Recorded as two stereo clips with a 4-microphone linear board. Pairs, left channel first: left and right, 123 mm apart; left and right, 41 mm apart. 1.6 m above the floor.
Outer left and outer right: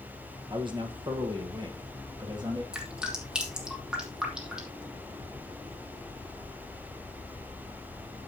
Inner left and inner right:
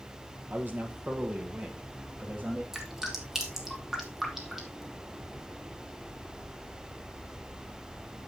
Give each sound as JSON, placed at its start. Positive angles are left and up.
{"t": 0.5, "sound": "a man speaking", "side_deg": -40, "distance_m": 1.2}
{"t": 2.7, "sound": "dripping", "side_deg": -5, "distance_m": 1.8}